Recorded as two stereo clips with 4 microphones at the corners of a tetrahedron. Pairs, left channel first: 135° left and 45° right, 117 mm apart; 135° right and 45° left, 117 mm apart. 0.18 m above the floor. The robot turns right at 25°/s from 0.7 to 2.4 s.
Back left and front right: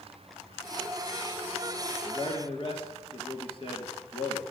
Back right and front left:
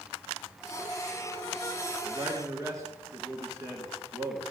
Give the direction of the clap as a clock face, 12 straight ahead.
No clap in this recording.